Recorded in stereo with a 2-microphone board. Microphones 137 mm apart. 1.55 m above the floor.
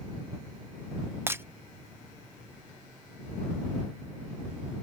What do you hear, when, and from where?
1.3 s breaking glass: 15° right (ahead or behind)